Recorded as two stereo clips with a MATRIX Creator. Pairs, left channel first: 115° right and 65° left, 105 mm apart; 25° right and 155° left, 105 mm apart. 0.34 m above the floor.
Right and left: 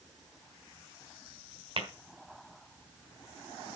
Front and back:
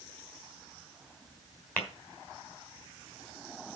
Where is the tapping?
50° left, 3 m.